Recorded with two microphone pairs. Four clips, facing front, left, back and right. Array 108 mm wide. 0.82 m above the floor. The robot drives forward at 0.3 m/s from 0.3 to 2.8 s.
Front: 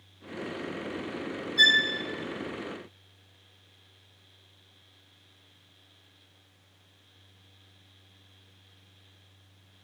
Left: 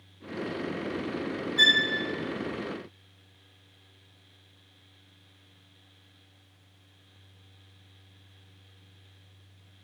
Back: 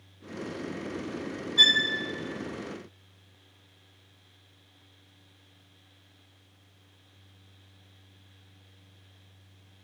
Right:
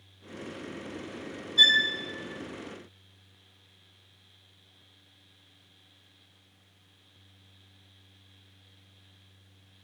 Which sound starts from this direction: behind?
A violin, at 1.6 s.